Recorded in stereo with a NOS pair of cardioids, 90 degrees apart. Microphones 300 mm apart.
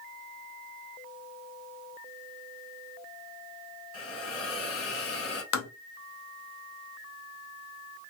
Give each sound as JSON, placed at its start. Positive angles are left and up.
{"t": 3.9, "sound": "a hiss", "azimuth_deg": 50, "distance_m": 1.8}
{"t": 5.5, "sound": "tapping", "azimuth_deg": 65, "distance_m": 1.0}